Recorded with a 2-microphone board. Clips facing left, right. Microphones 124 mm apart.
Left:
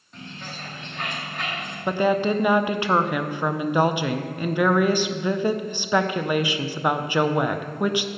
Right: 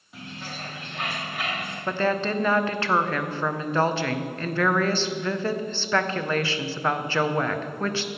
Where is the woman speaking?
15° left (ahead or behind), 0.6 m.